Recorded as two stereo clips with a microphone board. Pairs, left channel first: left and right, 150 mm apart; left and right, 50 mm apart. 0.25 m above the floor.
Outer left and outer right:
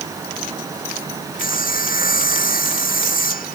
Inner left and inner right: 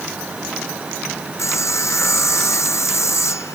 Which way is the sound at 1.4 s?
70° left (ahead or behind).